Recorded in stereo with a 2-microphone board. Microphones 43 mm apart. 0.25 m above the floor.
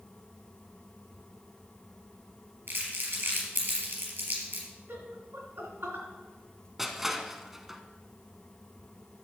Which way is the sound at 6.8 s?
5° right (ahead or behind).